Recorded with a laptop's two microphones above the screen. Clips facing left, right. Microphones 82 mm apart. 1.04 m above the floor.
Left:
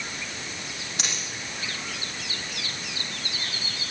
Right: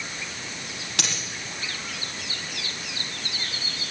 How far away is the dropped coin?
About 4 m.